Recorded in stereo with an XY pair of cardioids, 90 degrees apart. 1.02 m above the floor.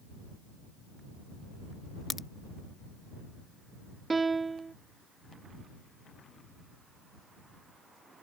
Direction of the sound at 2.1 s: 45° left.